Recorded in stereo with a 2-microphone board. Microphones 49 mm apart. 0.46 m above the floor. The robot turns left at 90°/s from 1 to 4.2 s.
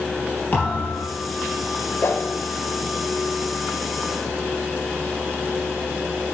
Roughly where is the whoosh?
Left.